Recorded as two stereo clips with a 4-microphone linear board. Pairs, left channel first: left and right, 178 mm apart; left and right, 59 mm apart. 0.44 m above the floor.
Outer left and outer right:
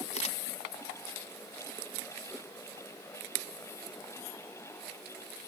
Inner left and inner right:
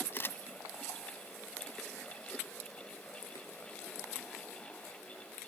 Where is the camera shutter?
40° left (ahead or behind), 1.1 m.